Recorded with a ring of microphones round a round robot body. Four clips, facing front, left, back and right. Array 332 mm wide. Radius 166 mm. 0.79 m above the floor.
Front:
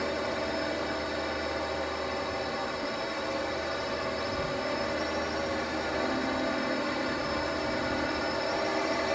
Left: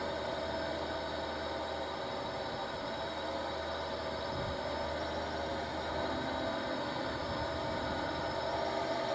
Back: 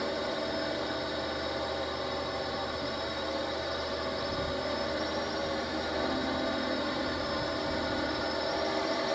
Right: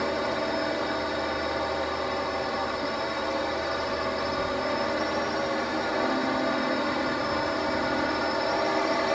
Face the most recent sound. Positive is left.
turn(degrees=-80)